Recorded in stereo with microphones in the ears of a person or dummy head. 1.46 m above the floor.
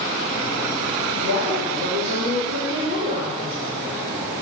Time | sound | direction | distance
1.2 | a woman speaking | 65° right (ahead or behind) | 2.5 m